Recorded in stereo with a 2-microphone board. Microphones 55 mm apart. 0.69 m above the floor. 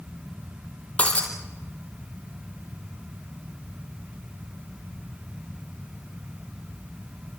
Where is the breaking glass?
25° left (ahead or behind), 3.5 m.